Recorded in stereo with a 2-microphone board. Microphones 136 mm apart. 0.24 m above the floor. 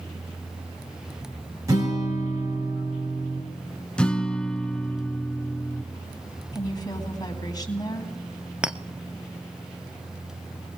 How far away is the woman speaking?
About 2 m.